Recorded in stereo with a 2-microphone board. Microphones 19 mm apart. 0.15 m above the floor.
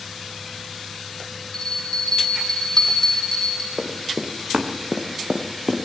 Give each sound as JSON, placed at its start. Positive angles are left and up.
{"t": 1.5, "sound": "a bell", "side_deg": 30, "distance_m": 8.5}
{"t": 3.8, "sound": "running footsteps", "side_deg": -50, "distance_m": 4.0}